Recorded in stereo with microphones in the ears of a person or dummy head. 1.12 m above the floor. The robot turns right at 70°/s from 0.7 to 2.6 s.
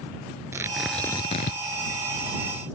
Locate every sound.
0.5 s tearing paper: 15° right; by 1.6 s 50° left